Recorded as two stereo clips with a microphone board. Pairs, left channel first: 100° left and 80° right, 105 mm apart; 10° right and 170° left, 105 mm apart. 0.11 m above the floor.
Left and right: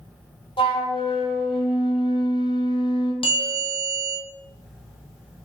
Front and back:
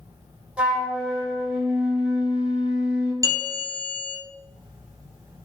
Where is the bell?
115° left, 1.0 m.